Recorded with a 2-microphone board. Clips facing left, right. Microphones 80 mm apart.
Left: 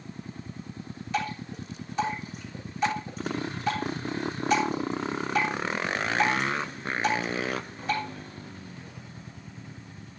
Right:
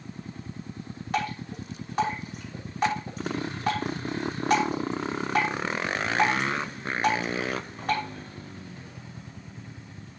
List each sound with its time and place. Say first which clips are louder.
1.1 s dripping: right 1 dB; 55° right (ahead or behind), 5.5 m